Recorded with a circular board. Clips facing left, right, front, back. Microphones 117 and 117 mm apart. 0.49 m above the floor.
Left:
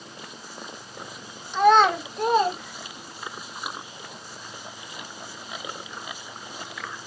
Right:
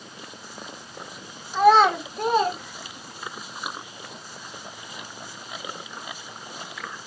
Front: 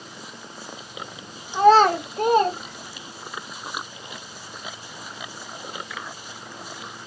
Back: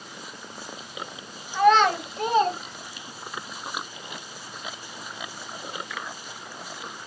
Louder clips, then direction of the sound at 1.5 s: Right 1 dB, front 4 dB; 10° right.